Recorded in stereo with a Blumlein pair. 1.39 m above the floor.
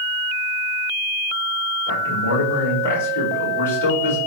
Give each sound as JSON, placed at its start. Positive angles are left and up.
{"t": 1.9, "sound": "a man speaking", "azimuth_deg": 65, "distance_m": 4.5}